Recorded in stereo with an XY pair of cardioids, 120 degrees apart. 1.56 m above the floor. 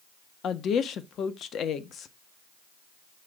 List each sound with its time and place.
0.4 s a woman speaking: 55° left, 1.1 m